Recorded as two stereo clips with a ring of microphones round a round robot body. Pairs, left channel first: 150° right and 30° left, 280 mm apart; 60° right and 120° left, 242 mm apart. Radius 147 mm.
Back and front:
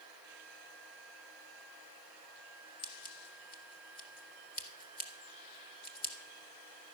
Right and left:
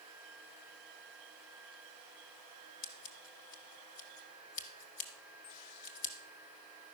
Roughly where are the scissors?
Right.